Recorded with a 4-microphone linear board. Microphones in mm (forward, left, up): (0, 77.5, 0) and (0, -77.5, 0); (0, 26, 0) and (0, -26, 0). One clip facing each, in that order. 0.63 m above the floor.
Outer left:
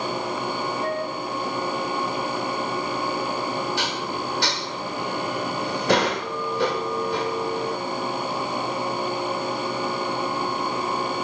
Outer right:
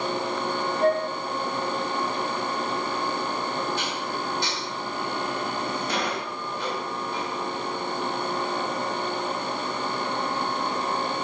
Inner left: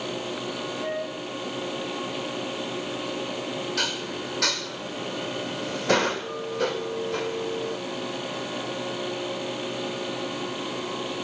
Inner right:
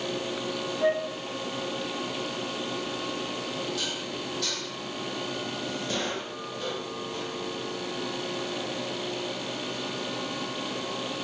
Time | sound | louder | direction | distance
0.8 | a flute | outer right 8 dB, inner right 7 dB | 55° right (ahead or behind) | 1.4 m
3.8 | dishes clattering | outer left 2 dB, inner left 4 dB | 75° left (ahead or behind) | 1.2 m